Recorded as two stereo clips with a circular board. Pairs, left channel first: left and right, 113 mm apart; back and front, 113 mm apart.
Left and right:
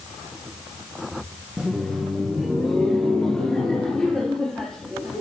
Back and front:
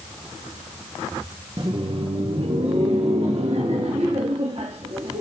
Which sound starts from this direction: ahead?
Laughter, at 1.6 s.